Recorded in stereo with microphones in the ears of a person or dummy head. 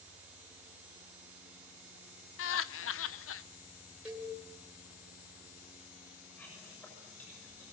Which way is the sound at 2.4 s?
70° left (ahead or behind).